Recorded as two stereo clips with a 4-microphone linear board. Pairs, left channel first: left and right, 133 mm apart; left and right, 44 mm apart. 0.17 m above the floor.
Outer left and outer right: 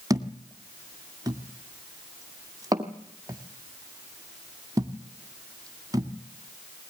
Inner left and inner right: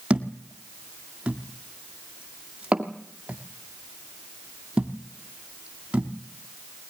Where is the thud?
25° right (ahead or behind), 2 m.